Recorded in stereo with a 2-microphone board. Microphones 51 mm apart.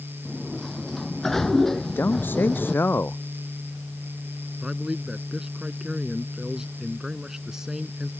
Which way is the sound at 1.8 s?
40° left (ahead or behind).